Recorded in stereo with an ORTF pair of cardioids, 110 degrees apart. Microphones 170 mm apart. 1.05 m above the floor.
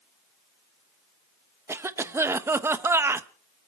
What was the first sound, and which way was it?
A cough, 15° right.